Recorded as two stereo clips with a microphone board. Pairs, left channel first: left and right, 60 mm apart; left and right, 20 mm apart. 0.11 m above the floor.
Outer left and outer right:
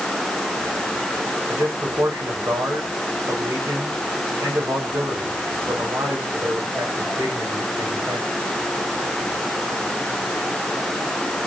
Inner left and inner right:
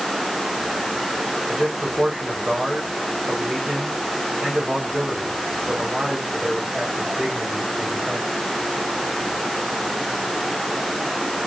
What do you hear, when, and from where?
1.5 s a man speaking: 55° right (ahead or behind), 9 m